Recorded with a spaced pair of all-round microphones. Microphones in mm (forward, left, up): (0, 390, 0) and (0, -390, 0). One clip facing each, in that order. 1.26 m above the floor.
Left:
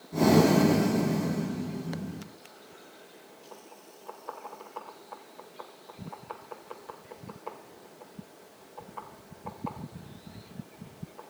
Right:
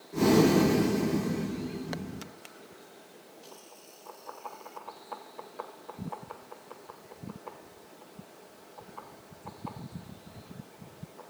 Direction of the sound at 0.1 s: 70° left (ahead or behind).